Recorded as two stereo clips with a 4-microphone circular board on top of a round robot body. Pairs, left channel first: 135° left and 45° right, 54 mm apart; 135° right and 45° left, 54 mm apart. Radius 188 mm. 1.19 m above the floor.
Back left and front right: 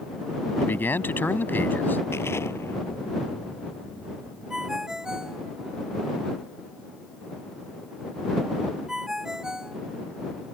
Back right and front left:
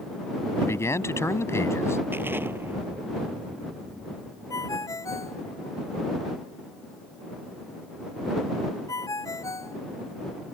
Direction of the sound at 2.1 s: 95° left.